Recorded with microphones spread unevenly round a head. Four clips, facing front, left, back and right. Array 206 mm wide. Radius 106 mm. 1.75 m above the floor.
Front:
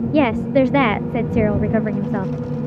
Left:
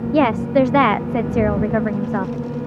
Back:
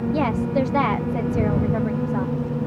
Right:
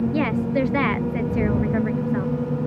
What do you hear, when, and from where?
0.1 s a woman speaking: 35° left